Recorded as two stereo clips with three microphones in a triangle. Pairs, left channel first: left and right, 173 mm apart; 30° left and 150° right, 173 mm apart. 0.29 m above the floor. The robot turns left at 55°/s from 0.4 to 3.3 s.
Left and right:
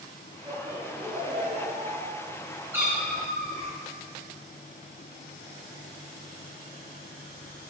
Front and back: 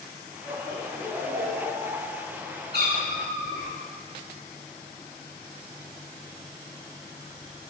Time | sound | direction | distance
0.5 | laughter | 35° right | 1.4 m
2.7 | a cat meowing | 165° right | 0.9 m